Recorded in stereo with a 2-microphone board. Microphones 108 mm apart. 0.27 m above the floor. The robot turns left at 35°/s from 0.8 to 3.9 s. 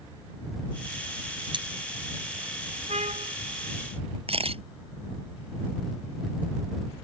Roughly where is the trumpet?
Right.